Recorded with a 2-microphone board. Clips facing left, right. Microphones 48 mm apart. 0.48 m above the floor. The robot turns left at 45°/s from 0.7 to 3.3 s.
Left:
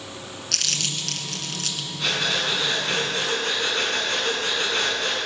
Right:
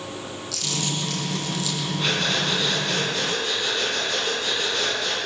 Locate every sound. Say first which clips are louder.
0.5 s crumpling: even; 75° left (ahead or behind), 2 m; by 1.9 s 50° left (ahead or behind), 2 m
2.0 s breathing: left 1 dB; straight behind, 4.5 m; by 5.2 s 120° left, 4.5 m